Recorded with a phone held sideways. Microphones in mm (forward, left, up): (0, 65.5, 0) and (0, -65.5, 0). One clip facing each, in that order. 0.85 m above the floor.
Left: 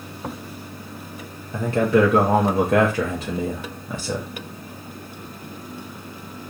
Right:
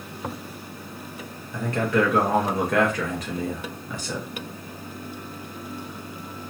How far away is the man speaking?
About 0.7 m.